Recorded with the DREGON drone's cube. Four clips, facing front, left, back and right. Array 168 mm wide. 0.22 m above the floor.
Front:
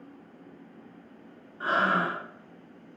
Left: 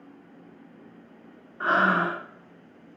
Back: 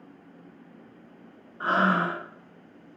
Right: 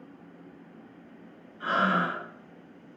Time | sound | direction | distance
1.6 | breathing | 120° left | 1.5 m